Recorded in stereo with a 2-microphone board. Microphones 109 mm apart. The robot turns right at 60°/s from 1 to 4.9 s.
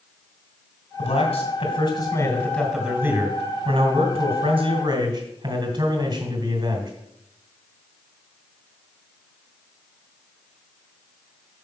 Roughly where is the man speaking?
Left.